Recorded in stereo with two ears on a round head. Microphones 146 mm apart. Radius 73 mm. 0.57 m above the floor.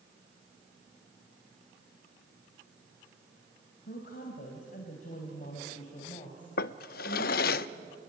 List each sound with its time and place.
3.9 s a woman speaking: 60° left (ahead or behind), 3.5 m; by 7.6 s 20° left (ahead or behind), 3.5 m
6.6 s a drawer: 65° left (ahead or behind), 0.6 m